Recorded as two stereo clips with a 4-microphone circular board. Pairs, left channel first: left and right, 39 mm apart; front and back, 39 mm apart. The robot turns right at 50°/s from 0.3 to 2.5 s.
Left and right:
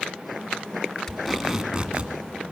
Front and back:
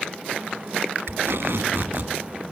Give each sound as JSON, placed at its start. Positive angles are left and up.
{"t": 1.1, "sound": "tape being pulled", "azimuth_deg": 165, "distance_m": 1.7}